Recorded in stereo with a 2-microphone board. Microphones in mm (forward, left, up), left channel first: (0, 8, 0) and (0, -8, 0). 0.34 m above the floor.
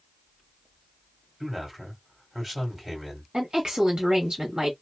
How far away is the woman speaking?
About 1.6 m.